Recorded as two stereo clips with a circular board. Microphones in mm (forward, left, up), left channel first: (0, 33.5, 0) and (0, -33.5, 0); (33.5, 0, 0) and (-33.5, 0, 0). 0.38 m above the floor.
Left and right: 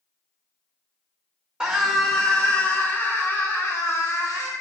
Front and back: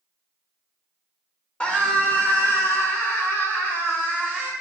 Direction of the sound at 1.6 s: 35° right.